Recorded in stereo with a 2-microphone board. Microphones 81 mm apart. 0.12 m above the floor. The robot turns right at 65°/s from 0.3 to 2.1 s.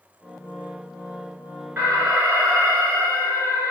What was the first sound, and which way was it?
An alarm, 25° right (ahead or behind).